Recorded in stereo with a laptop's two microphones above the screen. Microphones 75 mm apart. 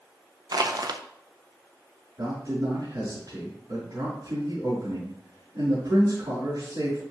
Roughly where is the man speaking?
Right.